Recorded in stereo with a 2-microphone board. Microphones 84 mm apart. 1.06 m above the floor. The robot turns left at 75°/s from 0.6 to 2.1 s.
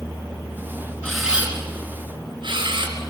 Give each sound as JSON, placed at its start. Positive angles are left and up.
{"t": 1.0, "sound": "a camera shutter", "side_deg": 10, "distance_m": 4.0}